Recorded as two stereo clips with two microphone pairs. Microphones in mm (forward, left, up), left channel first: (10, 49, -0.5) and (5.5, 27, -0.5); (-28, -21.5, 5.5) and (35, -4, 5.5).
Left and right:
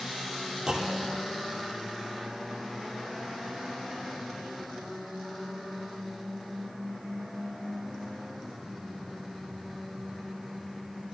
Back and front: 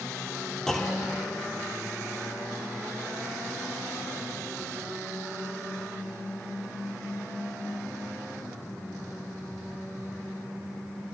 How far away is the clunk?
About 0.6 m.